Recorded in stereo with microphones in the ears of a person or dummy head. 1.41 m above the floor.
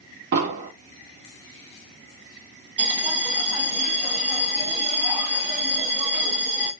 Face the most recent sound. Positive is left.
turn(degrees=-35)  # may be behind; listen again after turning